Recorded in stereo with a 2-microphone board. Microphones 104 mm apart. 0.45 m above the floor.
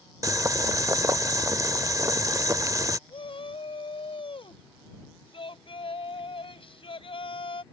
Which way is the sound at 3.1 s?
60° left (ahead or behind).